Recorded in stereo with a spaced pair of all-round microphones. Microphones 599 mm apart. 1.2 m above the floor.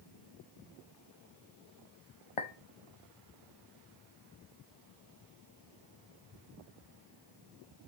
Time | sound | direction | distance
2.4 | a clink | 55° left (ahead or behind) | 1.0 m